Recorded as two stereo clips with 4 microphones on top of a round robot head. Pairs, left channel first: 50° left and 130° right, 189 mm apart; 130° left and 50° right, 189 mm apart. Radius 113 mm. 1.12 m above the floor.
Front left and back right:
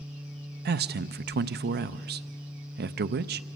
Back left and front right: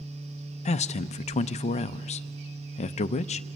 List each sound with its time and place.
0.7 s a man speaking: 170° right, 0.6 m